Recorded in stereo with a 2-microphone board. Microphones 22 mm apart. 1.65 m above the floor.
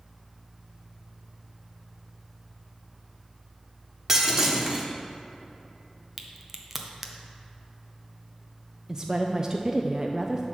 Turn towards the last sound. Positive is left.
turn(degrees=-25)  # may be behind; listen again after turning